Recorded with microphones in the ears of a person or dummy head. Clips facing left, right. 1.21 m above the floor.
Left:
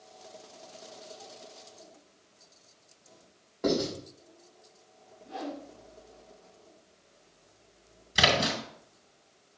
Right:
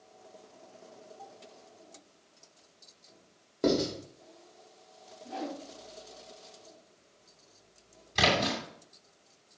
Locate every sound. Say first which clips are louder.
3.6 s writing: right 1 dB; 45° right (ahead or behind), 3.5 m
5.2 s a whoosh: even; 65° right (ahead or behind), 3 m
8.2 s a splash: left 1 dB; 10° left (ahead or behind), 2.5 m